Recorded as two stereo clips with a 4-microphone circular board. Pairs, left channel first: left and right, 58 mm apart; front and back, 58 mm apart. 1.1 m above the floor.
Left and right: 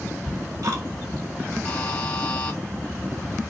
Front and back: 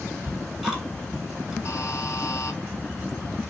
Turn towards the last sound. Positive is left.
turn(degrees=25)